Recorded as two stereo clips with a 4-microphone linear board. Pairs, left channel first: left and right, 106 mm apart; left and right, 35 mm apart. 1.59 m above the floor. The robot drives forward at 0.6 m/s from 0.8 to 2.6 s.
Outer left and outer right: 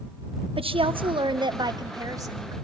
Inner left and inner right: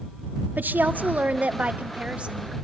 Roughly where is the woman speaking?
Right.